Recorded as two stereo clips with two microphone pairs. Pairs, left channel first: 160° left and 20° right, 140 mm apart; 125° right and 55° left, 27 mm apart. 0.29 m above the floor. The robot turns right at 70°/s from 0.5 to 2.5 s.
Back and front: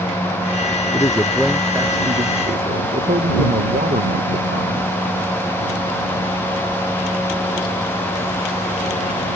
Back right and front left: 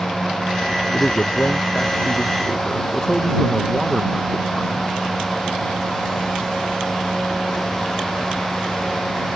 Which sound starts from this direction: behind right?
A man speaking, at 0.9 s.